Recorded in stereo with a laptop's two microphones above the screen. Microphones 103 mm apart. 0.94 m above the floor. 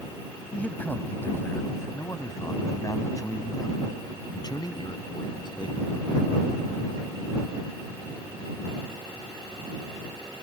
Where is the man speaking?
15° left (ahead or behind); by 6.0 s 50° left (ahead or behind).